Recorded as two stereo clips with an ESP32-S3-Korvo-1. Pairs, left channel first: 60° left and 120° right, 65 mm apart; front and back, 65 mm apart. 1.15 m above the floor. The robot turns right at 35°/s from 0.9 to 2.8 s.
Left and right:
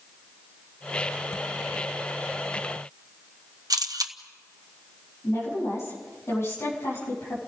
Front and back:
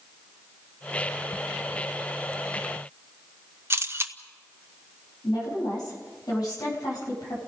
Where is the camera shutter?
130° right, 1.0 m.